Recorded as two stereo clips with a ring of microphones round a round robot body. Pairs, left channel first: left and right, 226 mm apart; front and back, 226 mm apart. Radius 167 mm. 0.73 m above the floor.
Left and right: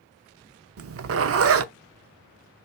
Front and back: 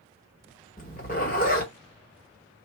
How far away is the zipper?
About 0.7 m.